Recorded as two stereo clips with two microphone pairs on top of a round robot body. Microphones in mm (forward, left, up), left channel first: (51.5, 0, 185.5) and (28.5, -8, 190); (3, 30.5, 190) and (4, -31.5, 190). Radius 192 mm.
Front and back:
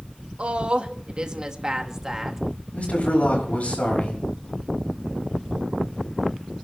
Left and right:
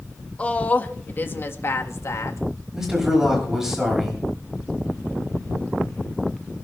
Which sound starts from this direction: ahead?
A man speaking, at 2.7 s.